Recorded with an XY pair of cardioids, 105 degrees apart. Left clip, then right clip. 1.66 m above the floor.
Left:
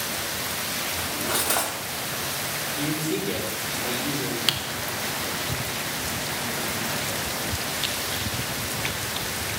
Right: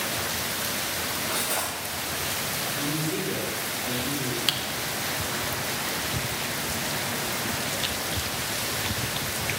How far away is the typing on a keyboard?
About 0.8 m.